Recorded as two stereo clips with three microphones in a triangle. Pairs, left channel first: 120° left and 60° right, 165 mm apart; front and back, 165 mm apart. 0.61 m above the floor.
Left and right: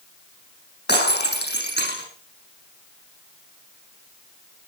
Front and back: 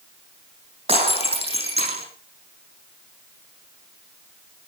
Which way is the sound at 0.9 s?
125° left.